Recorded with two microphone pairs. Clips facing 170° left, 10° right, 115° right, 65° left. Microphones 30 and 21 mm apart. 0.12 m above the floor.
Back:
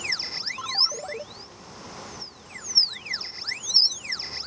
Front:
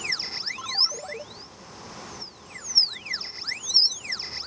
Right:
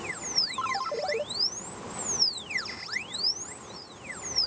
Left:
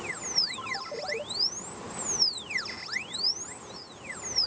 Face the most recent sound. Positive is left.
turn(degrees=-110)